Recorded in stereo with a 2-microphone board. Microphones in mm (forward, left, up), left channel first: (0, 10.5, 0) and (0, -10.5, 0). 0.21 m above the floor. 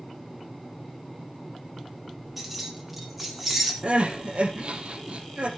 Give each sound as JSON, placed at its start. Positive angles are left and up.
{"t": 2.4, "sound": "keys jangling", "side_deg": -5, "distance_m": 4.5}
{"t": 3.8, "sound": "crying", "side_deg": -60, "distance_m": 3.0}